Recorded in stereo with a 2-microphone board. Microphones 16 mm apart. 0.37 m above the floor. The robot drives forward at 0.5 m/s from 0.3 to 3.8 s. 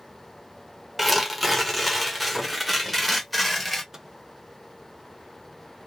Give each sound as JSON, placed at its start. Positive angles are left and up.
{"t": 1.0, "sound": "tearing paper", "side_deg": 0, "distance_m": 1.0}
{"t": 3.9, "sound": "a microwave", "side_deg": -30, "distance_m": 0.7}